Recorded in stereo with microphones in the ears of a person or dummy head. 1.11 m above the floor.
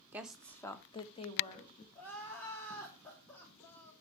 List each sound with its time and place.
0.1 s a woman speaking: 10° right (ahead or behind), 0.8 m; by 1.9 s 40° left (ahead or behind), 2 m
1.9 s crying: 15° left (ahead or behind), 3 m